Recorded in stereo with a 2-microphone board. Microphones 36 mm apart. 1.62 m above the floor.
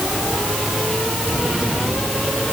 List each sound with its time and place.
Only background noise.